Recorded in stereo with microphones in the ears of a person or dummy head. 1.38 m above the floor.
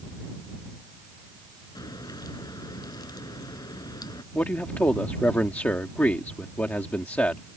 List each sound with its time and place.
1.8 s a crack: 15° left (ahead or behind)
4.3 s a man speaking: 5° left (ahead or behind)